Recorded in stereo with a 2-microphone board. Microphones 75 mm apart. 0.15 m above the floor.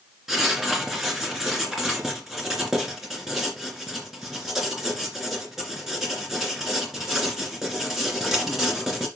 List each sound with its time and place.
0.3 s writing: 5° right (ahead or behind), 2.5 m